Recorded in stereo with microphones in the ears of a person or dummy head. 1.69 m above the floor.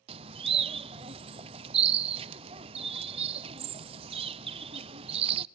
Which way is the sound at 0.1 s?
35° right (ahead or behind).